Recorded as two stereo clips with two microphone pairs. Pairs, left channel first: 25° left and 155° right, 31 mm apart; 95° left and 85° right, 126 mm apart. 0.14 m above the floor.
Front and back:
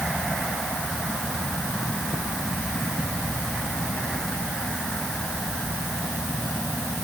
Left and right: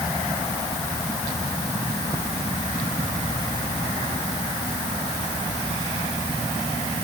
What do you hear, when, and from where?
Only background noise.